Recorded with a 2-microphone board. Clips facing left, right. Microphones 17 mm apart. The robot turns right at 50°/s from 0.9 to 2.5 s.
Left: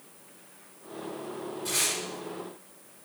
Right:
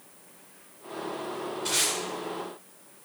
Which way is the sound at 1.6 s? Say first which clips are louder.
Right 2 dB; 35° right (ahead or behind).